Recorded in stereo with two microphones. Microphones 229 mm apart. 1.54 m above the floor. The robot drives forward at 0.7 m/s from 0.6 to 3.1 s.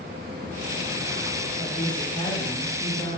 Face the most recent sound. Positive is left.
turn(degrees=25)  # may be behind; listen again after turning